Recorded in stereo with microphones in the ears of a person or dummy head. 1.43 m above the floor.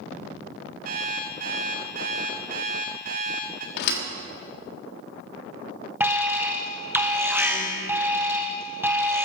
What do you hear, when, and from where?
0.8 s an alarm clock: 50° right (ahead or behind), 1.2 m
3.8 s a thud: 65° left (ahead or behind), 1.5 m
6.0 s an alarm: 15° right (ahead or behind), 0.9 m